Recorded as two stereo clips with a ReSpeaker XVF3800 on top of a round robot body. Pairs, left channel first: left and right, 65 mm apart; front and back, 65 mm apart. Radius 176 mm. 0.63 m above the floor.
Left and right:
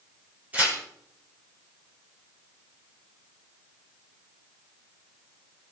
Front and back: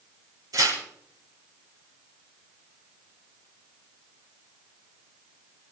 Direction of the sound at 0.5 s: 160° right.